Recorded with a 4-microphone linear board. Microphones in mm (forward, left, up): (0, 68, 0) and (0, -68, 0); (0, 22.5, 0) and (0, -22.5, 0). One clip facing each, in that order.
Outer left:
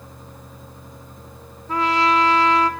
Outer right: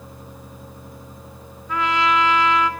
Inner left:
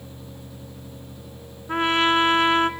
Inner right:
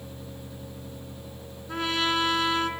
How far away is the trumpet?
About 0.8 m.